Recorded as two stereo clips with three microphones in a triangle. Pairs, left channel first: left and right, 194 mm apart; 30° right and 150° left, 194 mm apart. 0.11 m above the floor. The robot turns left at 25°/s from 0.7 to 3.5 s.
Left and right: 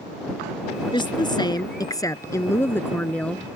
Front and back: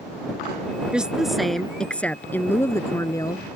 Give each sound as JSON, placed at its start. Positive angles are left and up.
{"t": 0.9, "sound": "a woman speaking", "azimuth_deg": 70}